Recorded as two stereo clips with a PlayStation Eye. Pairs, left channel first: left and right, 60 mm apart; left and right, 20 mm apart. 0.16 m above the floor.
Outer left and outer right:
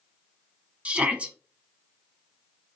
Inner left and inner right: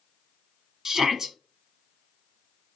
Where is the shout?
25° right (ahead or behind), 1.0 m.